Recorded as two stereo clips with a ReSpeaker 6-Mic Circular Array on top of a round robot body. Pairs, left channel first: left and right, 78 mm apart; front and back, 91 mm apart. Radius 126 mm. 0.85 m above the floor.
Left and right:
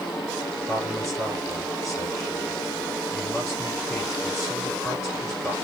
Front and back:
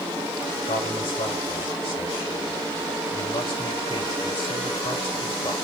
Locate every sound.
0.7 s a man speaking: 5° left, 4.5 m